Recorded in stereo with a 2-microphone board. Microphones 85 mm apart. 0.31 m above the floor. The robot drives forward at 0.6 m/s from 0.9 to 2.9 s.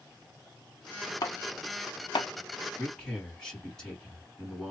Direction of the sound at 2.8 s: 5° left (ahead or behind).